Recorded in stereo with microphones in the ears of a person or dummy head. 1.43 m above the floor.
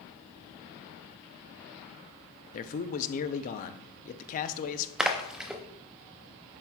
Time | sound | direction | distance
2.5 | a man speaking | 50° left (ahead or behind) | 0.6 m
5.0 | a splash | 10° right (ahead or behind) | 0.5 m